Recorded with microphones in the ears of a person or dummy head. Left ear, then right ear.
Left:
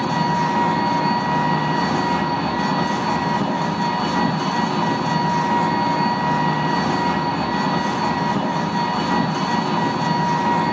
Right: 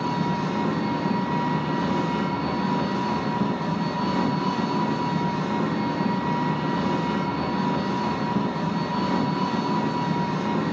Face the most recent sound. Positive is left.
turn(degrees=45)  # may be behind; listen again after turning